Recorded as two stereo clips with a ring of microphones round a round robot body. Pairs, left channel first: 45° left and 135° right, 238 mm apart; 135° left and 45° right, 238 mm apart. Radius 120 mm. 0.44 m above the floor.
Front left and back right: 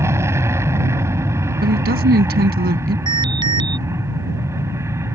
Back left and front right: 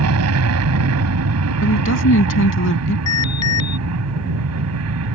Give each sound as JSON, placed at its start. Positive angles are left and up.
{"t": 0.0, "sound": "an aircraft", "azimuth_deg": -55}
{"t": 1.6, "sound": "a woman speaking", "azimuth_deg": 170}
{"t": 3.1, "sound": "an alarm", "azimuth_deg": 155}